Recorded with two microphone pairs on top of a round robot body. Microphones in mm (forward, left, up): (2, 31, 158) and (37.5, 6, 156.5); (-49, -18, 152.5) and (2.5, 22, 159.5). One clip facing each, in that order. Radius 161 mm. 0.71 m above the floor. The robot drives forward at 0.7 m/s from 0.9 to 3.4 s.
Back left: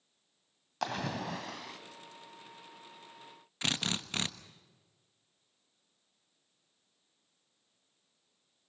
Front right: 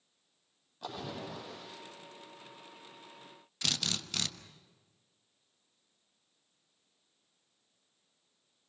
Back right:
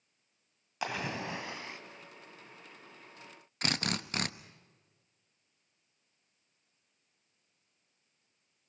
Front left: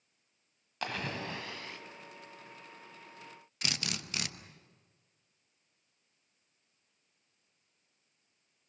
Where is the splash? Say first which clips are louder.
Back left 6 dB, back right 1 dB; 135° left, 1.7 m; by 1.8 s 145° left, 2 m.